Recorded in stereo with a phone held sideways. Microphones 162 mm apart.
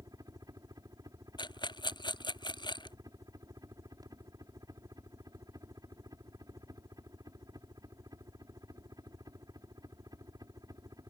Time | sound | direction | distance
0.0 | a helicopter | 20° right (ahead or behind) | ?
1.4 | a rattle | 25° left (ahead or behind) | ?